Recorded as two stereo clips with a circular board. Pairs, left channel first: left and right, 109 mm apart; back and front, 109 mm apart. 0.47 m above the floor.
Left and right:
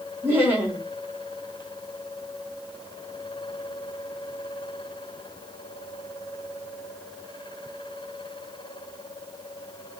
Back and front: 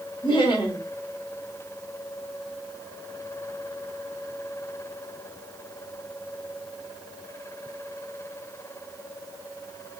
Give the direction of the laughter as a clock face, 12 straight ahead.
5 o'clock.